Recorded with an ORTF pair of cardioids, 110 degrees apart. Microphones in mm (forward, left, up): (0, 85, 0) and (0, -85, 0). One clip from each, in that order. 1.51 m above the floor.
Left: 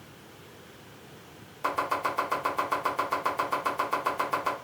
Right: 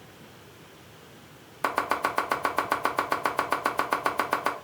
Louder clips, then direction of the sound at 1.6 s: Right 2 dB; 40° right.